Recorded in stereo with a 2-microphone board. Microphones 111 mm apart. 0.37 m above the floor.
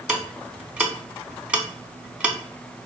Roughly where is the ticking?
Centre.